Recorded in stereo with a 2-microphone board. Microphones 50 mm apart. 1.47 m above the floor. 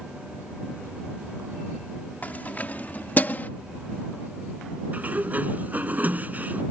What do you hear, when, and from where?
2.2 s keys jangling: 35° left (ahead or behind); by 3.5 s 40° left (ahead or behind)
4.9 s a sliding door: 30° right (ahead or behind)